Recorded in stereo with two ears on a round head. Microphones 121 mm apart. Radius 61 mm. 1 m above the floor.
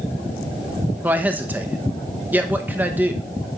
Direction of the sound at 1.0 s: 15° right (ahead or behind).